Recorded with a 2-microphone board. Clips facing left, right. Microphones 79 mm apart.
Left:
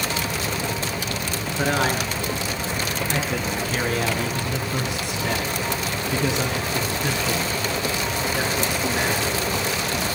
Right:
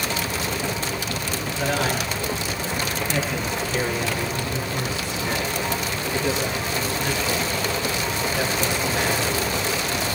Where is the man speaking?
35° left (ahead or behind), 5.5 m.